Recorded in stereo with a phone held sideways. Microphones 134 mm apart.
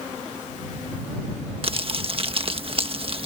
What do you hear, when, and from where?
1.6 s crumpling: 45° right (ahead or behind)